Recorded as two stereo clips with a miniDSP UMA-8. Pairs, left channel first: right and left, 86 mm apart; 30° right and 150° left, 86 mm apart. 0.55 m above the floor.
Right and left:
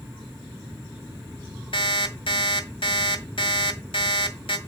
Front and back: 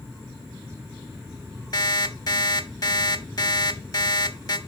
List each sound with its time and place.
1.7 s an alarm clock: 75° right, 1.7 m